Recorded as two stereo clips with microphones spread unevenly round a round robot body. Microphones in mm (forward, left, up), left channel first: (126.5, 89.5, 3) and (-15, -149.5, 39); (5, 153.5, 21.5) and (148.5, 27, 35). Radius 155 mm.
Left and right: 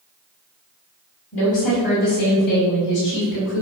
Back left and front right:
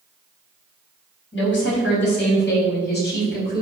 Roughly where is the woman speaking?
Behind left.